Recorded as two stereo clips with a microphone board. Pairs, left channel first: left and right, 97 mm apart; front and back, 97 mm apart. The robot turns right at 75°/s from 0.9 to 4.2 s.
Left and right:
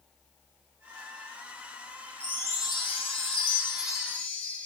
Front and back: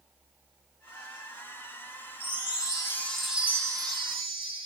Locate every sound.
2.2 s a chime: 15° left, 0.6 m; by 4.7 s 165° left, 0.6 m